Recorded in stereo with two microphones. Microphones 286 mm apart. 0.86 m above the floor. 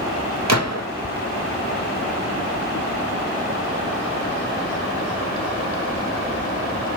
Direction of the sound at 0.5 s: 65° right (ahead or behind).